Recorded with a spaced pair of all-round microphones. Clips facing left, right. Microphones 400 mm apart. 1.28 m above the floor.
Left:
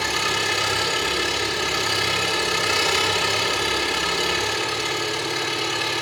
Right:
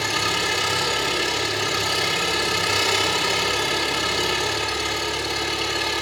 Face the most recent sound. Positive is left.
turn(degrees=-60)  # may be behind; listen again after turning